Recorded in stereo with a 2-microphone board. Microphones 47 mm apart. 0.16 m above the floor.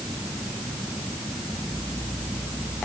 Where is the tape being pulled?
No tape being pulled in this recording.